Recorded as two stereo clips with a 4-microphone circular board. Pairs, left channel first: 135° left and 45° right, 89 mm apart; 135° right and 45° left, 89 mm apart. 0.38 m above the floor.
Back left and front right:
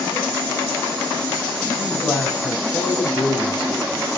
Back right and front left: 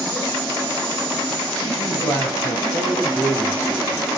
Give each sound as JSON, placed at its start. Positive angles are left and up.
{"t": 1.8, "sound": "a man speaking", "azimuth_deg": -170, "distance_m": 3.5}